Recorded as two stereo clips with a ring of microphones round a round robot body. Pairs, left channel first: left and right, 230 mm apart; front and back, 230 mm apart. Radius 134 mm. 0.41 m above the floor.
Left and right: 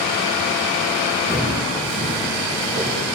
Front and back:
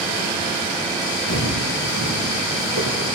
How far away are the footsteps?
About 3 m.